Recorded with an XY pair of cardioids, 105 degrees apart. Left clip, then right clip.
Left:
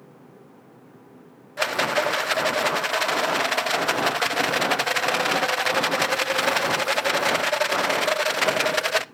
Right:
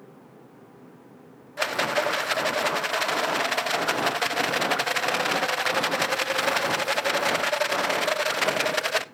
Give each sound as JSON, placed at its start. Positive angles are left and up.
{"t": 1.6, "sound": "a rattle", "azimuth_deg": 15, "distance_m": 0.6}